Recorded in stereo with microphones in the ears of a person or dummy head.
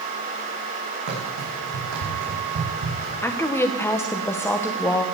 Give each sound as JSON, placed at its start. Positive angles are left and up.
{"t": 1.1, "sound": "running footsteps", "side_deg": -70, "distance_m": 5.5}
{"t": 3.2, "sound": "a woman speaking", "side_deg": 10, "distance_m": 1.0}